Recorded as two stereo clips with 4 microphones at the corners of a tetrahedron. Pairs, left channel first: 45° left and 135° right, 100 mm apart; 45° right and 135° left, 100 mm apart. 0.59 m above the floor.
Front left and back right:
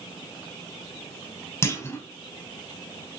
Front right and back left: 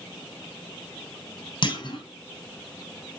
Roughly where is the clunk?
Ahead.